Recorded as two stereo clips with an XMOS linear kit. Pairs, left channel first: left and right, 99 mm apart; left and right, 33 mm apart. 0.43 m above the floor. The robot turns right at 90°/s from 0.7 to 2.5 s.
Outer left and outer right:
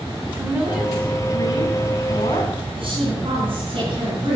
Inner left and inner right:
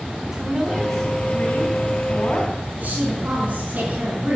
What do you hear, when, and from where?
0.3 s a woman speaking: 15° right, 4 m; by 2.5 s 145° left, 4 m
2.8 s a woman speaking: 60° right (ahead or behind), 4.5 m